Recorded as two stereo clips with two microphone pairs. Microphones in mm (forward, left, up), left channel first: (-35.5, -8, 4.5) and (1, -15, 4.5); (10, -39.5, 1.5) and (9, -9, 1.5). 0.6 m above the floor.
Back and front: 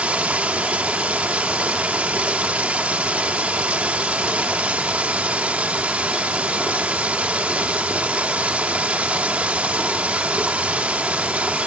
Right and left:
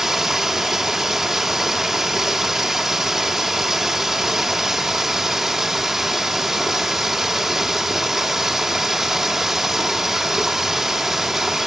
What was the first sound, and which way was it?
Running water, 20° left.